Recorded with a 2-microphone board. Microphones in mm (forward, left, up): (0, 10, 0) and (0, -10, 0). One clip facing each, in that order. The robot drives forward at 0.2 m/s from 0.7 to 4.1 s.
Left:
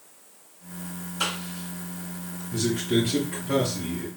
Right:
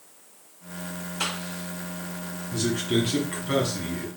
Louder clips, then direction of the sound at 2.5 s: Left 1 dB; 45° right (ahead or behind).